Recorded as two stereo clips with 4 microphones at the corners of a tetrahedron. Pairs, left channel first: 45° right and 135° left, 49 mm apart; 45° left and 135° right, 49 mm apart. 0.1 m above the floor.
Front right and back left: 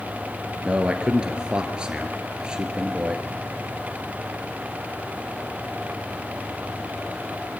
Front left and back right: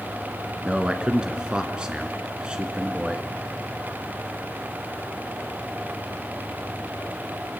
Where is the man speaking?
175° left, 1.7 m.